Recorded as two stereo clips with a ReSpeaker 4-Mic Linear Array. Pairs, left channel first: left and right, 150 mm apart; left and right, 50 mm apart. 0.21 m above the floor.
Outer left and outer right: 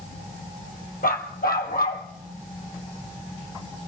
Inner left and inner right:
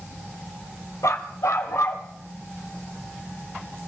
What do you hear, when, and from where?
1.0 s a dog barking: 75° left (ahead or behind), 1.8 m; by 2.0 s 80° left, 2.5 m